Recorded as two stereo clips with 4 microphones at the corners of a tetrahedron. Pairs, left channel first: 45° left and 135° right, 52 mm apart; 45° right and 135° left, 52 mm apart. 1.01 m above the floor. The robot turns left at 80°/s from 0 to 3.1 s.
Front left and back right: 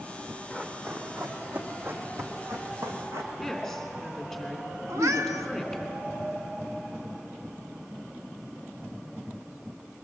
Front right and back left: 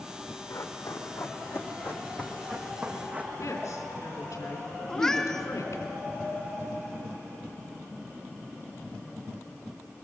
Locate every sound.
0.5 s running footsteps: 15° right, 3 m; by 3.3 s 165° right, 3 m
3.4 s a woman speaking: 45° right, 3 m
4.9 s a cat meowing: 125° right, 1.0 m